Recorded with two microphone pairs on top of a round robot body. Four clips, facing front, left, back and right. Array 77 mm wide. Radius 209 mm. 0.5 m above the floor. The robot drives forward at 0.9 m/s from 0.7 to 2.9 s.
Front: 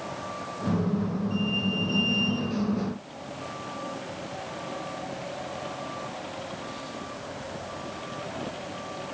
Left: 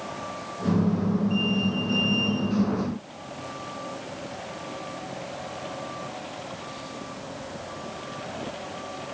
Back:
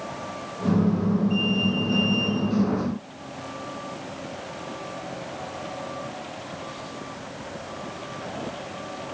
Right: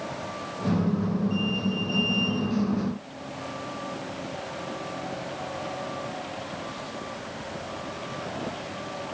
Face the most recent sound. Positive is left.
No sound to turn to.